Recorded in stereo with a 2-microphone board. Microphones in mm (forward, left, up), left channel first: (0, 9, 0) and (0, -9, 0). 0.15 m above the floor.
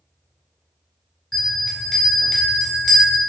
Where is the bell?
10° left (ahead or behind), 0.8 m.